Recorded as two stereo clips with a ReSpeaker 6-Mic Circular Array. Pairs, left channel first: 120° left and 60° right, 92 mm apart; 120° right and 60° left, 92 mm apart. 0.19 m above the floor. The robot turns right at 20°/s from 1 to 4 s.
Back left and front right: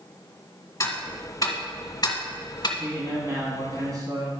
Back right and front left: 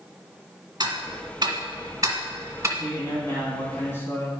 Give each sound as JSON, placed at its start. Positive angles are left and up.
{"t": 0.8, "sound": "ticking", "azimuth_deg": 80, "distance_m": 1.7}
{"t": 2.8, "sound": "a man speaking", "azimuth_deg": -95, "distance_m": 1.9}